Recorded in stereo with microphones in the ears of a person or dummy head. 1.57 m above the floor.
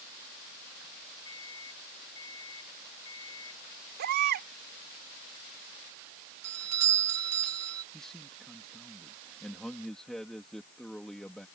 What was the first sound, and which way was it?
A microwave, 15° left (ahead or behind).